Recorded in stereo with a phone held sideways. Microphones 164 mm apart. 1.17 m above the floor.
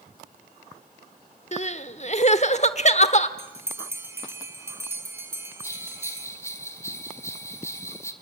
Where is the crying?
45° left (ahead or behind), 1.0 m.